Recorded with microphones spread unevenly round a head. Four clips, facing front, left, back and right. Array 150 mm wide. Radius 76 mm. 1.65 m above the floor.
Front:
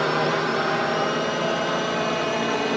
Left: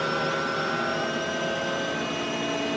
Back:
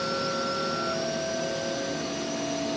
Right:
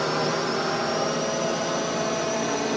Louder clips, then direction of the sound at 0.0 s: Right 2 dB, front 7 dB; 20° right.